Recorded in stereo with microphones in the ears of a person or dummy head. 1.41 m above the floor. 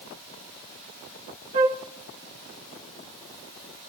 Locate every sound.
1.5 s a flute: 45° right (ahead or behind), 0.5 m